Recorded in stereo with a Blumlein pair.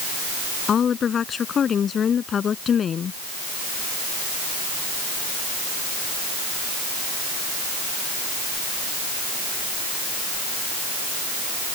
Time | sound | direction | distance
0.7 | a woman speaking | 25° left | ?